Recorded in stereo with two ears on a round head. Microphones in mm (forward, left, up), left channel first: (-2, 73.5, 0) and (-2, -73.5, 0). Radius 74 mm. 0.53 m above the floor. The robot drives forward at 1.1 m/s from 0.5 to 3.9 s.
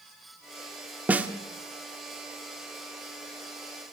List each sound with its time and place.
1.1 s a snare drum: 10° right (ahead or behind), 1.4 m